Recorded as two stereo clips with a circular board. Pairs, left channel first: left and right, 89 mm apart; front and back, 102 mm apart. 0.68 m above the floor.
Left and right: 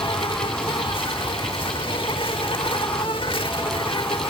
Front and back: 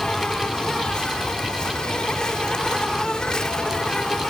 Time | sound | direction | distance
0.0 | an insect | 80° left | ?